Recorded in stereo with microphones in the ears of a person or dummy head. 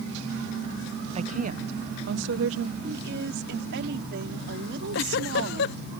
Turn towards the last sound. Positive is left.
turn(degrees=75)  # may be behind; listen again after turning